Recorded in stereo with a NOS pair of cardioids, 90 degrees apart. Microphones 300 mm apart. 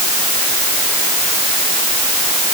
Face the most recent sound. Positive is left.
No sound to turn to.